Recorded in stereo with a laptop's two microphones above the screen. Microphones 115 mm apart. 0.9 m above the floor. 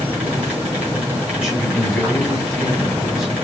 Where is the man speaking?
10° right (ahead or behind), 4 m.